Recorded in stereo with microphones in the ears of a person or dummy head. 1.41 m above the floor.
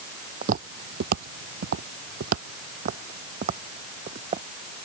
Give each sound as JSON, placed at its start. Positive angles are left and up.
{"t": 0.4, "sound": "footsteps", "side_deg": -45}